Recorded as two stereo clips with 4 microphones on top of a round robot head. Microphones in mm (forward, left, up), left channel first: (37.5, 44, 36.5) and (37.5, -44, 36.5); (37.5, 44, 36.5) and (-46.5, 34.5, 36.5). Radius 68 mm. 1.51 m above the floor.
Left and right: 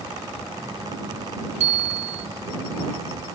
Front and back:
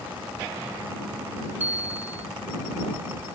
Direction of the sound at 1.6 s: 95° right.